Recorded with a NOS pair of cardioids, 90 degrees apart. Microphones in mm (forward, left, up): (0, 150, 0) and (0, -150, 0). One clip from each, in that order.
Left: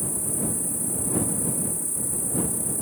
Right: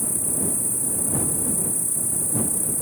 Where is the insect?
20° right.